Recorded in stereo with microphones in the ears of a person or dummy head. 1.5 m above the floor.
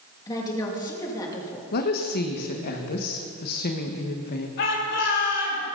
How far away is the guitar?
No guitar in this recording.